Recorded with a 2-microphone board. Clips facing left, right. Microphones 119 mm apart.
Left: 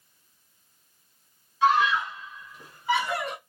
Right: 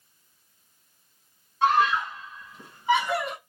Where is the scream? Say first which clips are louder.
Even; 50° right (ahead or behind), 2 m; by 3.4 s centre (ahead or behind), 1.4 m.